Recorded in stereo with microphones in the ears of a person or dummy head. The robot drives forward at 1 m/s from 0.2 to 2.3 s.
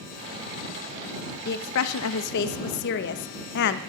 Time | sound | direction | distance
1.4 | a woman speaking | 55° left (ahead or behind) | 0.8 m